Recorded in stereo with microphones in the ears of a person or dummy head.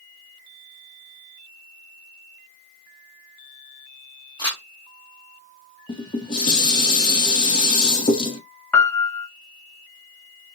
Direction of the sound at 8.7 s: 5° left (ahead or behind).